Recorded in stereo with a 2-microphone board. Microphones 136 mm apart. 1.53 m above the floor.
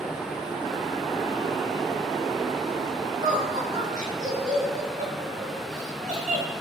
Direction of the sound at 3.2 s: 65° right (ahead or behind).